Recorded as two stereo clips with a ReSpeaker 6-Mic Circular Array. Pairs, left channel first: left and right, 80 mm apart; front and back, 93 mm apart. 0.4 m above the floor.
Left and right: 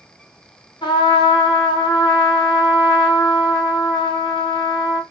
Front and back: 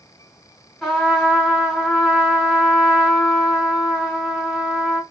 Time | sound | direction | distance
0.8 | a trumpet | 90° left | 1.4 m